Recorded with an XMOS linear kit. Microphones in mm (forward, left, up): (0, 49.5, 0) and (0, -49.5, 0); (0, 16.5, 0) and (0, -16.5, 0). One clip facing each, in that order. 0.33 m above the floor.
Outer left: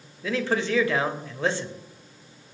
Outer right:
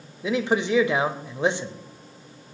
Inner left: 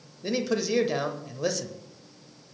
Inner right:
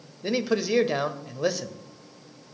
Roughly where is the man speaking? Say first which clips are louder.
Outer right 2 dB, inner right 2 dB; centre.